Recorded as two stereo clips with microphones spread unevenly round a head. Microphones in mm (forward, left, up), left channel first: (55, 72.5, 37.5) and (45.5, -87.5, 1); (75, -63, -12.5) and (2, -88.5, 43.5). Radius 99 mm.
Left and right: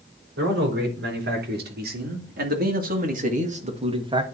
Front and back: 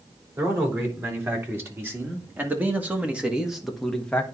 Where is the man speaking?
100° right, 3.5 m; by 4.3 s 35° right, 1.3 m.